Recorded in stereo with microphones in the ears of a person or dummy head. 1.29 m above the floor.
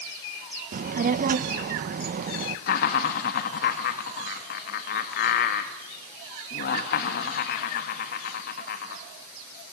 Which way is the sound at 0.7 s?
45° right (ahead or behind).